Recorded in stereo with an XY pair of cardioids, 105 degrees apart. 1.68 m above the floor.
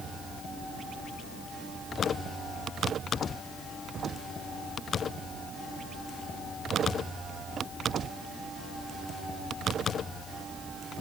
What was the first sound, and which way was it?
Only background noise.